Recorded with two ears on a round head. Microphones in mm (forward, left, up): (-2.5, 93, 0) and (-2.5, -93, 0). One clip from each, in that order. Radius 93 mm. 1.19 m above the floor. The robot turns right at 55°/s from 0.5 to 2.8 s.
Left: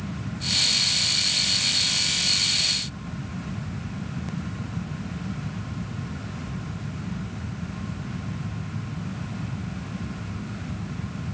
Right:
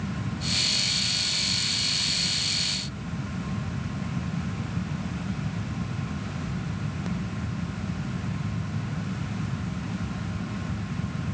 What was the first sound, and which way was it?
Only background noise.